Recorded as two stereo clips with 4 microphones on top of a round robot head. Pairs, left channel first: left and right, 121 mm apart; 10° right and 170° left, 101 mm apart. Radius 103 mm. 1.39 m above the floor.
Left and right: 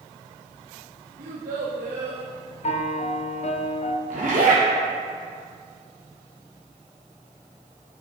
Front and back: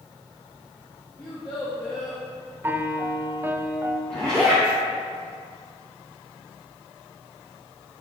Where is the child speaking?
80° right, 1.1 m.